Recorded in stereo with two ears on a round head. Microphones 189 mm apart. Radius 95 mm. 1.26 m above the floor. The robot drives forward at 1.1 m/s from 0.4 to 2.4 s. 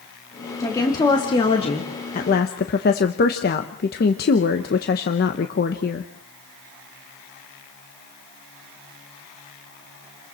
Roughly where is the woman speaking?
Centre.